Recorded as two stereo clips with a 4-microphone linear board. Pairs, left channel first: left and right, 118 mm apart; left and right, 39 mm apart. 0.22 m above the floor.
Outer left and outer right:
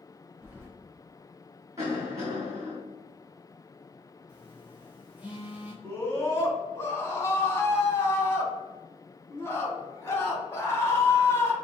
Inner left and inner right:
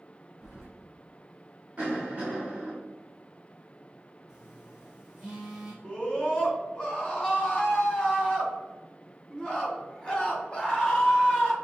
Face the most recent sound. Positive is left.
turn(degrees=20)  # may be behind; listen again after turning